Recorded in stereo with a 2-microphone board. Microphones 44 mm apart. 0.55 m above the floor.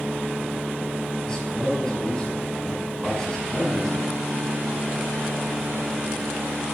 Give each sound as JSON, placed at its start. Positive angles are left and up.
{"t": 1.2, "sound": "a man speaking", "side_deg": 20, "distance_m": 5.0}